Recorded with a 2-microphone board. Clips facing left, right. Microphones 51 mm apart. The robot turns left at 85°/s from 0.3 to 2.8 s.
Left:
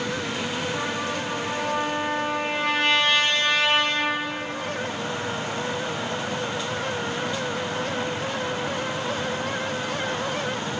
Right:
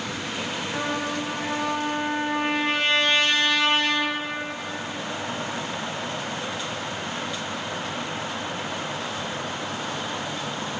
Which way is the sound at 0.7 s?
135° right.